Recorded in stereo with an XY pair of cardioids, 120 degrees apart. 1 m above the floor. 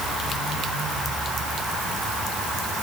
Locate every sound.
Only background noise.